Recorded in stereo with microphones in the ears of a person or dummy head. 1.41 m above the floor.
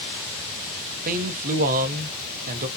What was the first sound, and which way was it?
A man speaking, 45° right (ahead or behind).